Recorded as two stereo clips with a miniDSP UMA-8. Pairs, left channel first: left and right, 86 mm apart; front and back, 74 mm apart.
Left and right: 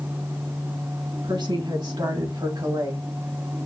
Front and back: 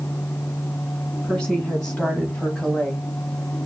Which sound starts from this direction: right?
A woman speaking, at 1.2 s.